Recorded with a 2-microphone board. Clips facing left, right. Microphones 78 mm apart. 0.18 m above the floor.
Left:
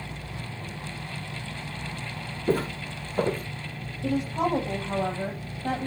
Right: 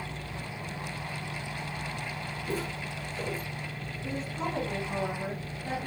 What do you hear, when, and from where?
2.5 s footsteps: 50° left (ahead or behind), 1.1 m
4.0 s a woman speaking: 75° left (ahead or behind), 5.5 m